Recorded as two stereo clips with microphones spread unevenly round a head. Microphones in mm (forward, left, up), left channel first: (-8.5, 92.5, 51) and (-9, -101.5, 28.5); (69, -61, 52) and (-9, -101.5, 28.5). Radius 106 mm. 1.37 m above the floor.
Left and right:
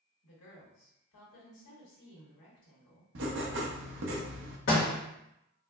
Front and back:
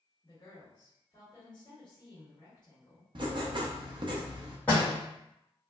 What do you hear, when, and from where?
0.2 s a woman speaking: 90° left, 1.4 m
3.1 s writing: 115° right, 0.7 m
4.7 s a door slam: 105° left, 1.2 m